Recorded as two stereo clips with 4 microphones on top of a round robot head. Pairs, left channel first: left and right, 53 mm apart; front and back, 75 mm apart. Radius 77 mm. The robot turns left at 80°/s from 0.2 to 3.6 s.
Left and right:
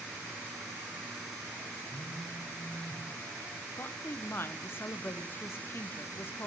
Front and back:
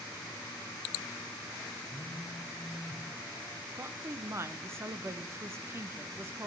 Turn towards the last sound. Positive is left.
turn(degrees=130)